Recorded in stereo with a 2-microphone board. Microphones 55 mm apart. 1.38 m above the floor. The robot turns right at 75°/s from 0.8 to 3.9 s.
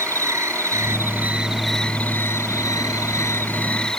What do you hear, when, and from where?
0.0 s an insect: 65° right; by 4.0 s 170° left